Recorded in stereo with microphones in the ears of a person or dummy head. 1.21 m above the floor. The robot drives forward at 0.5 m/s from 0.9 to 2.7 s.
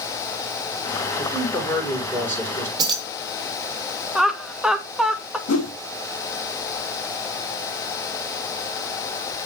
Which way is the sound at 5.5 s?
80° left.